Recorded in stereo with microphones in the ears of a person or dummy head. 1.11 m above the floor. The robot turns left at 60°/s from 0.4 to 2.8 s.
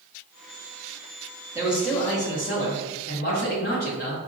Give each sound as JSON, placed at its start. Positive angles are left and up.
{"t": 1.6, "sound": "a man speaking", "azimuth_deg": -160, "distance_m": 0.9}